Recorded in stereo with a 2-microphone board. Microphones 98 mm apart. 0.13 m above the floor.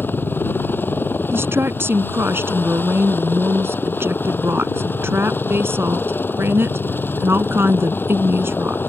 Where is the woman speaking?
25° right (ahead or behind).